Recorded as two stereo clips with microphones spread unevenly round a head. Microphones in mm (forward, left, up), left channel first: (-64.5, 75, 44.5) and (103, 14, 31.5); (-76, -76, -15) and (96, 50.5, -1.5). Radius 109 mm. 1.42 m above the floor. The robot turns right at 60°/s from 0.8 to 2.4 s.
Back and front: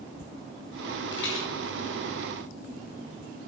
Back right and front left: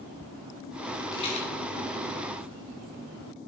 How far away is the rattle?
About 2.5 m.